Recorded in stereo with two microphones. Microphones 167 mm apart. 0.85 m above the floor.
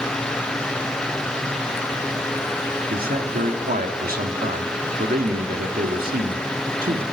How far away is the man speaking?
About 2 m.